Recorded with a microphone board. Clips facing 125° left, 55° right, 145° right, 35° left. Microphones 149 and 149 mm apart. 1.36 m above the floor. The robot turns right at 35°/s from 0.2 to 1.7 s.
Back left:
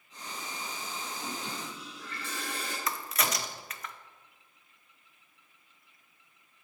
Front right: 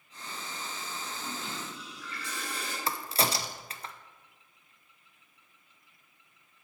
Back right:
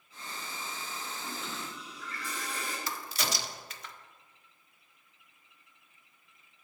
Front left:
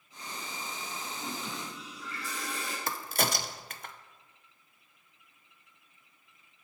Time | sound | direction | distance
1.2 | a toilet flushing | 75° left | 4 m
2.9 | a crack | straight ahead | 0.6 m